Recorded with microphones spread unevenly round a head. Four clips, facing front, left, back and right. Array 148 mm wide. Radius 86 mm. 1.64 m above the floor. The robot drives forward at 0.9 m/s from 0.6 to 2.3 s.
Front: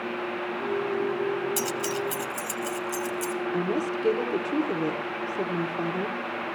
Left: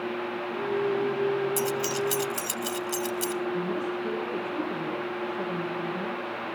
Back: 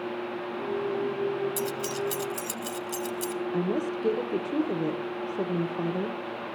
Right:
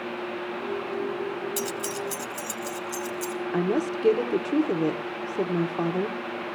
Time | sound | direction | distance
1.6 | keys jangling | 5° left | 0.6 m
3.5 | a woman speaking | 115° right | 1.2 m